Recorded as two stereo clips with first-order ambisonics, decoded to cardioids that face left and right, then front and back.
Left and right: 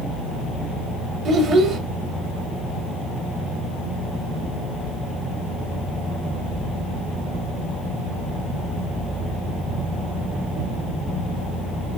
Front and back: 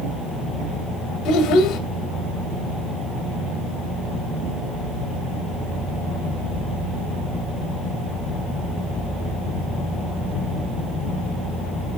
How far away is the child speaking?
About 1.9 m.